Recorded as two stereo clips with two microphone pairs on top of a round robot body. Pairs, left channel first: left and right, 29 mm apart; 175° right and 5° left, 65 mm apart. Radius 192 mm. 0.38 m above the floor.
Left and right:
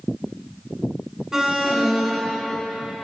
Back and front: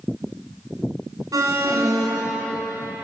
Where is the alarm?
15° right, 6.5 m.